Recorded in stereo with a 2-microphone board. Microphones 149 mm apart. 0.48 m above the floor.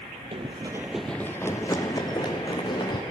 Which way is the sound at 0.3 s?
40° right (ahead or behind).